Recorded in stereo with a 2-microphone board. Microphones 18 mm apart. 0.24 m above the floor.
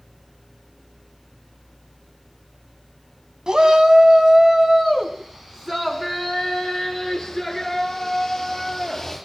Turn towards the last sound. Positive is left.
turn(degrees=5)  # may be behind; listen again after turning